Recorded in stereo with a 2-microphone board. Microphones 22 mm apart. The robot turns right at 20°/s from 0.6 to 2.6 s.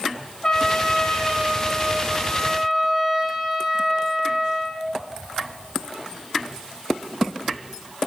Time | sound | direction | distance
0.4 | a trumpet | 150° left | 0.7 m